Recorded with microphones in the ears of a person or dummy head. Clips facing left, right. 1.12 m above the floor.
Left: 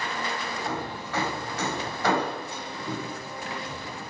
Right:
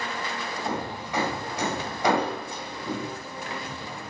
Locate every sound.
0.7 s hammering: 15° right (ahead or behind), 5.5 m